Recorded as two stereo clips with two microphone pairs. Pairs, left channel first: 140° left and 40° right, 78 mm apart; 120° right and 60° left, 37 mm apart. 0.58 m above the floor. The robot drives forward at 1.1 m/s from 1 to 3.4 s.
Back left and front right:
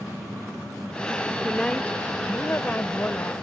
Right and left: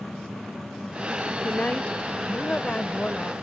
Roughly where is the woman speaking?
Behind right.